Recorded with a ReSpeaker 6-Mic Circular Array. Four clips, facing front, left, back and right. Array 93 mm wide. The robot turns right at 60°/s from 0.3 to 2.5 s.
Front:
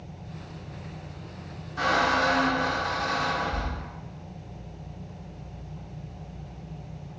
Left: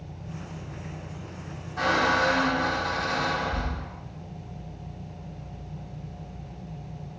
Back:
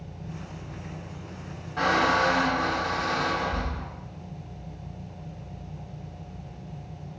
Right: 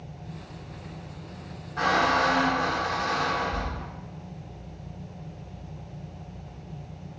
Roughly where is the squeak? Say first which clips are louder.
Right 1 dB, back 1 dB; behind right.